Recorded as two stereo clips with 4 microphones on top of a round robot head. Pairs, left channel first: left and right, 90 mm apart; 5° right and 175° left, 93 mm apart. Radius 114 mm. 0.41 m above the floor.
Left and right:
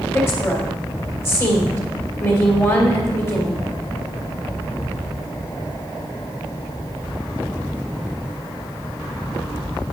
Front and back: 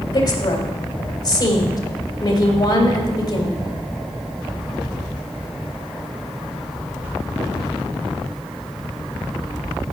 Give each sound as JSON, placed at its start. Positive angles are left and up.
{"t": 0.1, "sound": "a woman speaking", "azimuth_deg": 30, "distance_m": 2.5}